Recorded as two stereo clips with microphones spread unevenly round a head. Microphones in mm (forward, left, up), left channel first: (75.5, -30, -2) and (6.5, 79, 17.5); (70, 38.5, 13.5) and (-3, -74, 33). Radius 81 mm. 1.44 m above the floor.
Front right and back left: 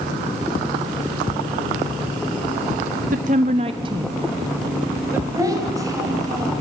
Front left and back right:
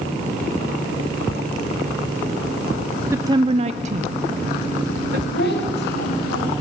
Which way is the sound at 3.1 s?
160° left.